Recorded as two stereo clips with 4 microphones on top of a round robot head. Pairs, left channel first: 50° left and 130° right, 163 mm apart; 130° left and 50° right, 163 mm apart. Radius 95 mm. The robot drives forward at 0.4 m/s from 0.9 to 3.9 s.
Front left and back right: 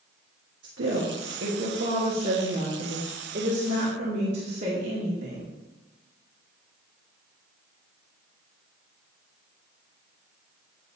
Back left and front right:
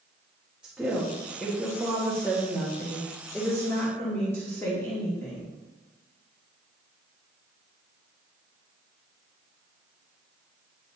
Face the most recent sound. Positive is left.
turn(degrees=-155)